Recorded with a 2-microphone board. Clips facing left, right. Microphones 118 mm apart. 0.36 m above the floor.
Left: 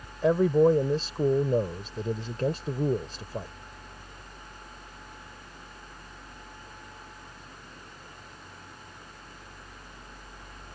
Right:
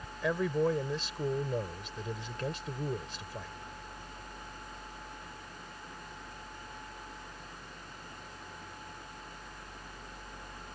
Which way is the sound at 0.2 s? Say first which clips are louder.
Left 9 dB; 40° left (ahead or behind).